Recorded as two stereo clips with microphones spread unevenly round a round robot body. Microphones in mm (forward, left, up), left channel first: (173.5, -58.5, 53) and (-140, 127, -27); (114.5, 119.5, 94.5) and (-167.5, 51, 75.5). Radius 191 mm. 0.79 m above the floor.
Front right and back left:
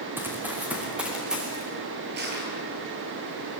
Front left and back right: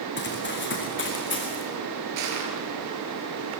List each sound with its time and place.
0.2 s running footsteps: 65° left, 5 m; by 1.6 s 60° left, 6 m
2.2 s crushing: 145° right, 5 m